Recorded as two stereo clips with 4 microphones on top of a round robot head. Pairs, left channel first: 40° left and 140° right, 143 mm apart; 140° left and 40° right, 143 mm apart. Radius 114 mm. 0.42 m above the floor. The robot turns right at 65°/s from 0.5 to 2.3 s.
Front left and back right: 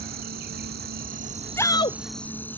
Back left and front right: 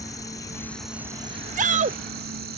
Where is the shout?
30° right; by 2.0 s 5° right.